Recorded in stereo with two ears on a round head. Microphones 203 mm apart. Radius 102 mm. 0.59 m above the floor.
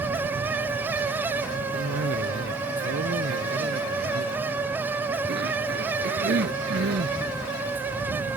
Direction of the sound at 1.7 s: 50° right (ahead or behind).